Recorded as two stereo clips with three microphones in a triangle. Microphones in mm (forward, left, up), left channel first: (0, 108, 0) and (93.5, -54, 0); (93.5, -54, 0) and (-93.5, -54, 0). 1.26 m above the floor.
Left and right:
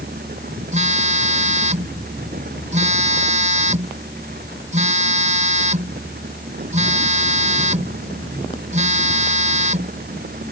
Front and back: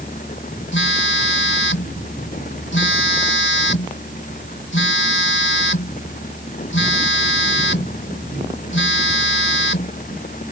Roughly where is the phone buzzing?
Ahead.